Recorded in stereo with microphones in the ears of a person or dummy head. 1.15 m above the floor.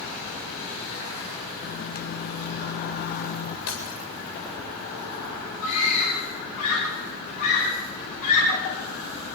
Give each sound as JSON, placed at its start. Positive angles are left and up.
{"t": 1.6, "sound": "a microwave", "side_deg": 45, "distance_m": 0.6}
{"t": 3.7, "sound": "breaking glass", "side_deg": 65, "distance_m": 9.0}
{"t": 5.6, "sound": "a scream", "side_deg": 50, "distance_m": 10.0}